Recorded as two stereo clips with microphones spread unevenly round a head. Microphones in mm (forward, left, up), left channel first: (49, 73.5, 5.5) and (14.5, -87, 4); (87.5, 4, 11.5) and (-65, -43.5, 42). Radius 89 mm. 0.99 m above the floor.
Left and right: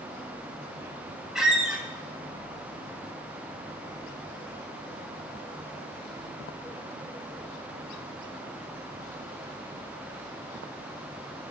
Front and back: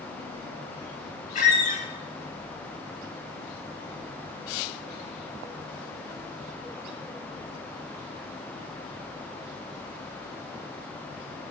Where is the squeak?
15° right, 1.0 m.